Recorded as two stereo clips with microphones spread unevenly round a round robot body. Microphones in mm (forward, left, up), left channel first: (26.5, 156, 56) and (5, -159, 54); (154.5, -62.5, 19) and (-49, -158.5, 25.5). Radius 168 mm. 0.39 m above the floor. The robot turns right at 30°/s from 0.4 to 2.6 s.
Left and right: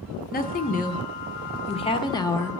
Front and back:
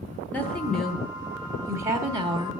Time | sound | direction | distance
0.3 | a woman speaking | 95° left | 0.9 m